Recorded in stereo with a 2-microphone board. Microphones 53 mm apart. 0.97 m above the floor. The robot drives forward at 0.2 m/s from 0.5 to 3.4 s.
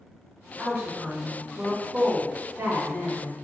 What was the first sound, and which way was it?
A woman speaking, 45° right (ahead or behind).